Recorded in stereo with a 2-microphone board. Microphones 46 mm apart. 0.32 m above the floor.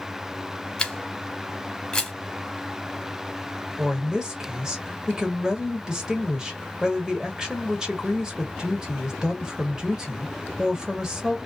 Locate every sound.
0.8 s a camera shutter: 15° left (ahead or behind), 1.0 m
3.8 s a woman speaking: 15° right (ahead or behind), 1.1 m